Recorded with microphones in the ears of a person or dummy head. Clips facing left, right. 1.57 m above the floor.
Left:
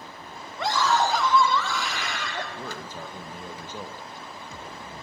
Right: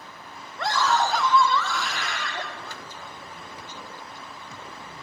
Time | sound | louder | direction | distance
0.6 | a scream | even | centre (ahead or behind) | 3 m
2.5 | a man speaking | left 4 dB | 40° left (ahead or behind) | 2.5 m